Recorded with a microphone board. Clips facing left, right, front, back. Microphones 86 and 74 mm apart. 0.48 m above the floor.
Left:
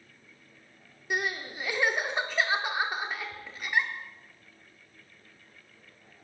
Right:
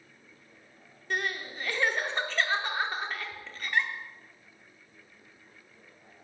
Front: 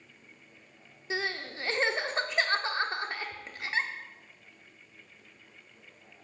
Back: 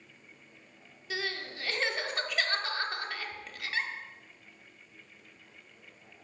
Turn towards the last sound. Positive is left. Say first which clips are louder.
# left 1 dB, front 3 dB
turn(degrees=20)